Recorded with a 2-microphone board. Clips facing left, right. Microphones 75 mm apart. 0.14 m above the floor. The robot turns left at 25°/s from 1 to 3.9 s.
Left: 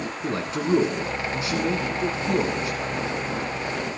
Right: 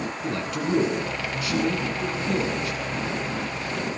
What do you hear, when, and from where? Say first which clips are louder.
0.2 s a man speaking: left 3 dB; 25° left (ahead or behind), 1.4 m; by 2.9 s 20° left (ahead or behind), 1.4 m